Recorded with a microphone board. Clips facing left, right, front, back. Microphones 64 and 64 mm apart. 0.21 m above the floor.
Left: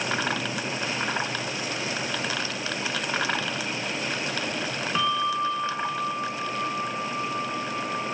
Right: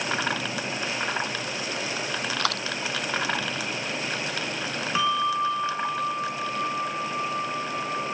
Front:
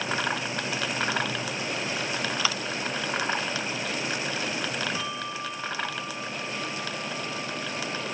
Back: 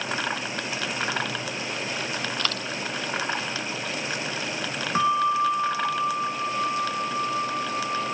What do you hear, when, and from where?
2.4 s a dropped coin: 80° right
5.0 s a bell: 175° right